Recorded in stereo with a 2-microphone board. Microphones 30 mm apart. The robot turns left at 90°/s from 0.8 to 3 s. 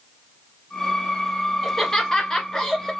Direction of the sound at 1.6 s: 10° left (ahead or behind).